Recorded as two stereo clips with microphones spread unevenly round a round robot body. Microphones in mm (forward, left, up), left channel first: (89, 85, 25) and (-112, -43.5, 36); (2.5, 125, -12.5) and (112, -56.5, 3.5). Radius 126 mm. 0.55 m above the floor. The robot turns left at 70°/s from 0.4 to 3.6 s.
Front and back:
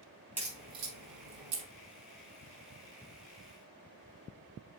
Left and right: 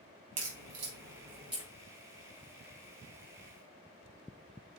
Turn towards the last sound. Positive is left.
turn(degrees=70)